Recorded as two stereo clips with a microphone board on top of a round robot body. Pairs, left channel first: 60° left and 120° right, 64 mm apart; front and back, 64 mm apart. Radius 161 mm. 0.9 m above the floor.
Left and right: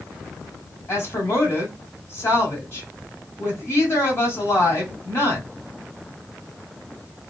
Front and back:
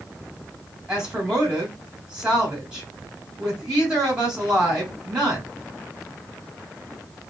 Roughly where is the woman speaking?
Left.